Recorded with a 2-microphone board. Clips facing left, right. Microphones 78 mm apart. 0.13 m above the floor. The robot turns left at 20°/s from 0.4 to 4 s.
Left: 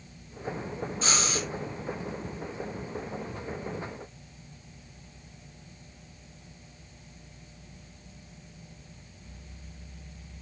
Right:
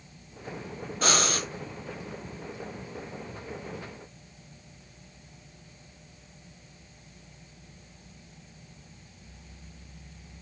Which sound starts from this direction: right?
Breathing, at 1.0 s.